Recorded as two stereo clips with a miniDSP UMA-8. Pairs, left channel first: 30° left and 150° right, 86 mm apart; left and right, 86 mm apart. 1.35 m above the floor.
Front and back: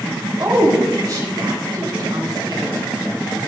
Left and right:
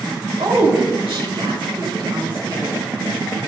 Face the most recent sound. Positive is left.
turn(degrees=-115)